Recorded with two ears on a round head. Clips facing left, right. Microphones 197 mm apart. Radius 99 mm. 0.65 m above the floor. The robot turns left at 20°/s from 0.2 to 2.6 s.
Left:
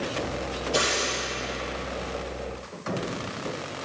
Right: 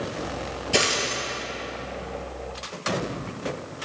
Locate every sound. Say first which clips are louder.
0.7 s a dropped coin: right 3 dB; 80° right, 3.5 m; by 1.2 s 75° right (ahead or behind), 3.5 m